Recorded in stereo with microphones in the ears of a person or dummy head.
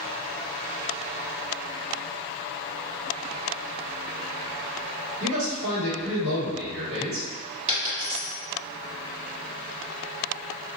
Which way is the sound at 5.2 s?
75° right (ahead or behind).